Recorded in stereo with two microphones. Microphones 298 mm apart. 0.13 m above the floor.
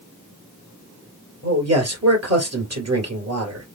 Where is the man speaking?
50° right (ahead or behind), 2.5 m.